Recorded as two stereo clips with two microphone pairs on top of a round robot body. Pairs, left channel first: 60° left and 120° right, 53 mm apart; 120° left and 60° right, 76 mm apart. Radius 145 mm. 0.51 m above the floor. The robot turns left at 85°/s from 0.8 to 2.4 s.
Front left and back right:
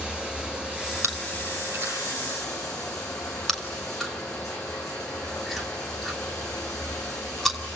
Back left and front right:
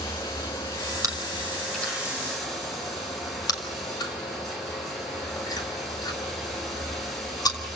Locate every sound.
0.0 s running water: 170° left, 5 m; by 7.8 s 35° left, 5 m
1.0 s chewing: 100° right, 3 m; by 7.6 s 145° left, 3 m